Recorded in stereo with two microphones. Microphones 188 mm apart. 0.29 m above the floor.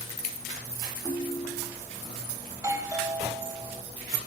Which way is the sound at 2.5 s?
15° right (ahead or behind).